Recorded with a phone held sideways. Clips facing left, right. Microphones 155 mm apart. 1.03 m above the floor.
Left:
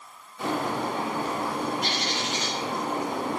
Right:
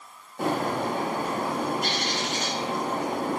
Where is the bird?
45° right (ahead or behind), 0.5 m.